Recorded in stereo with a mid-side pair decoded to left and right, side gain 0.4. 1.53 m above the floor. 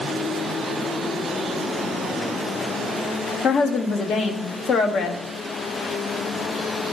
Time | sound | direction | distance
3.4 | a woman speaking | 65° left | 1.0 m